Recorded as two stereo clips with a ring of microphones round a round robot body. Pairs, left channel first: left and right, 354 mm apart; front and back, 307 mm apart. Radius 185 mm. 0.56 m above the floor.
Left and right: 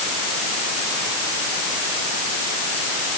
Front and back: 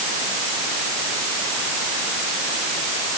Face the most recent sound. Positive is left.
No sound to turn to.